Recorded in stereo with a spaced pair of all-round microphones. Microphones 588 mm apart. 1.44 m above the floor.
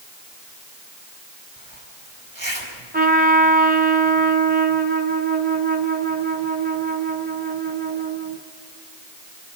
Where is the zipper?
35° right (ahead or behind), 4 m.